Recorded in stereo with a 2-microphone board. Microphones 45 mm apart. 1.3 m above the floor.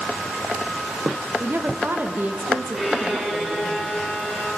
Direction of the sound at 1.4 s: 55° right (ahead or behind).